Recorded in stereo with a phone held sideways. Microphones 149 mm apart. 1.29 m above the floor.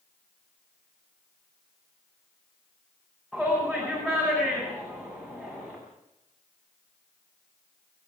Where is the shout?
5° left (ahead or behind), 8.5 m.